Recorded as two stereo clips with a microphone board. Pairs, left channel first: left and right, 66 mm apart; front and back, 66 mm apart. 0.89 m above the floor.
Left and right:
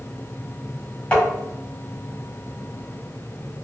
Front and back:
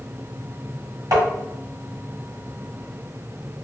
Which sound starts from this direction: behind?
Tapping, at 1.1 s.